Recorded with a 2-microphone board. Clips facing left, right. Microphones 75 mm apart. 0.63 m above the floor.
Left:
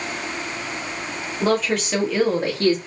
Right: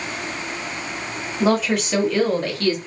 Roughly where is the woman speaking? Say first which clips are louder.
Right 2 dB; centre.